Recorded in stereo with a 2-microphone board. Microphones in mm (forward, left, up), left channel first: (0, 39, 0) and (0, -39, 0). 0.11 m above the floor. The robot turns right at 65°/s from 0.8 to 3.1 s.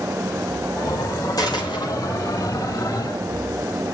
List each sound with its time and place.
1.4 s a dropped coin: 55° left (ahead or behind), 4.5 m; by 1.9 s 90° left, 4.5 m